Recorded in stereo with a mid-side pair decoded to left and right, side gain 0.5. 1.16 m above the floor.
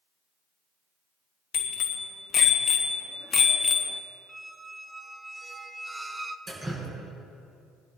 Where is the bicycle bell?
55° left, 2 m; by 4.0 s 30° left, 1.0 m.